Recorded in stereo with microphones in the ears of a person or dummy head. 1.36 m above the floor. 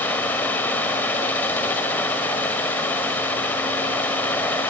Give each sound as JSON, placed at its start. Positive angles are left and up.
{"t": 0.0, "sound": "a fan", "side_deg": 10, "distance_m": 1.9}